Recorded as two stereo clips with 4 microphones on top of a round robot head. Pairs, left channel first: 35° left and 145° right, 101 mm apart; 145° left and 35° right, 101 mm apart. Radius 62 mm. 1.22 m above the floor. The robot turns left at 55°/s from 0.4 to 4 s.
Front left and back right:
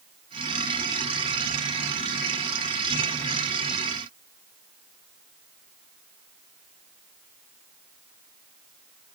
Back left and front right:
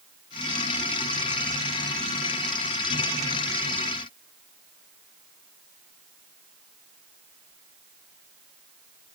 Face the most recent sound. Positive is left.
No sound to turn to.